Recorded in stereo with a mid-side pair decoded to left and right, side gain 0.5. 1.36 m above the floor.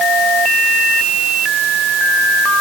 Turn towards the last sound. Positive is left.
No sound to turn to.